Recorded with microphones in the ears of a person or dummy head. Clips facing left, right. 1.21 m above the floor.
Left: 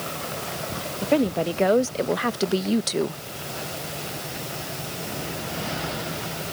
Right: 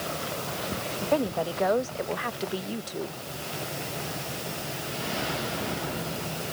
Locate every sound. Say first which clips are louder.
1.0 s a woman speaking: left 5 dB; 25° left (ahead or behind); by 3.2 s 80° left